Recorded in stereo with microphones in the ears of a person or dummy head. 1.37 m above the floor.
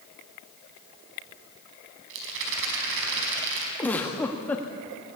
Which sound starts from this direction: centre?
A giggle, at 3.8 s.